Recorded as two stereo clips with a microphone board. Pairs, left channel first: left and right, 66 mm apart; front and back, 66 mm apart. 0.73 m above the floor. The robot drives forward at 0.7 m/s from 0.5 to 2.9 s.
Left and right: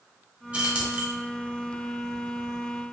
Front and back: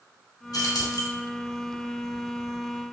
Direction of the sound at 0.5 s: 15° right.